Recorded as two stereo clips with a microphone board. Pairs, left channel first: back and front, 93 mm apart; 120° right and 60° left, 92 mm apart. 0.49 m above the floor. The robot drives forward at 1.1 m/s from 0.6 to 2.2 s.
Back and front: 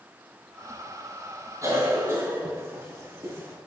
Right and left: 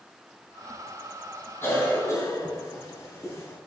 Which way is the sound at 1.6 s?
55° right.